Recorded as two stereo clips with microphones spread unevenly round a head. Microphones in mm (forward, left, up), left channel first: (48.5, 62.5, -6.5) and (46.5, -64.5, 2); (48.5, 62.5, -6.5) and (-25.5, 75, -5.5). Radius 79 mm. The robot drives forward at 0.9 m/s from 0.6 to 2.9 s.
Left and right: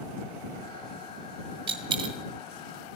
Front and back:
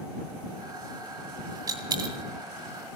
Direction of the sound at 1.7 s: 140° right.